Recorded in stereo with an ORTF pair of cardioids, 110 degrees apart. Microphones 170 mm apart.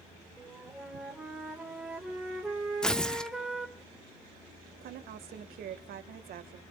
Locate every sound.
0.4 s a flute: 5° right, 3.5 m
2.8 s tearing paper: 5° left, 0.8 m
4.8 s a woman speaking: 65° right, 1.9 m